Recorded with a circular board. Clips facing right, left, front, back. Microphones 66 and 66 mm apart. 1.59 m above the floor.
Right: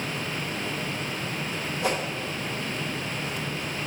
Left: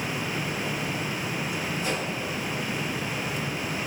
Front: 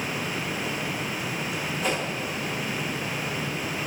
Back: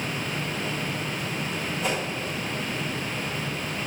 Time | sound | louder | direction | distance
1.8 | a whoosh | right 5 dB, even | 85° right | 2.5 m